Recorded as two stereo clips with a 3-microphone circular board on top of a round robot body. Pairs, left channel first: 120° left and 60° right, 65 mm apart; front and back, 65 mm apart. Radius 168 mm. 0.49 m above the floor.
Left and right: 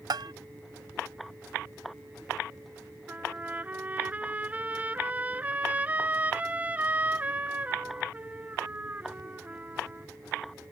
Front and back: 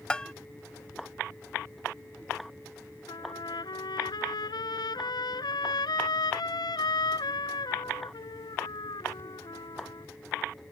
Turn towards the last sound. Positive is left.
turn(degrees=10)